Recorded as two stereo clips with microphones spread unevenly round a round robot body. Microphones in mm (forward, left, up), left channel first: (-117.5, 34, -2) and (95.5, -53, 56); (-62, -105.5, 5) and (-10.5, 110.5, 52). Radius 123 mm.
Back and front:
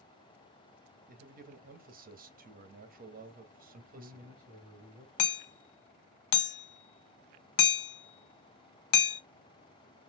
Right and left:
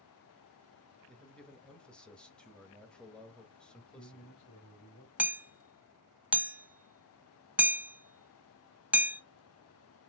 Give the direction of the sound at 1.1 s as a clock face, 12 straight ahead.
2 o'clock.